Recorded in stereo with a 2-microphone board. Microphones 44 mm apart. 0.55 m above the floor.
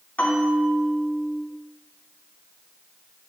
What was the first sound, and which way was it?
A bell, 40° left (ahead or behind).